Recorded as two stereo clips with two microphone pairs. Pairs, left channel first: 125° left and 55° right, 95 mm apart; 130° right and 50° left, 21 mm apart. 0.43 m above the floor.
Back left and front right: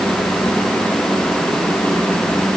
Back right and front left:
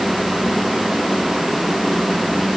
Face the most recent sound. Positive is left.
No sound to turn to.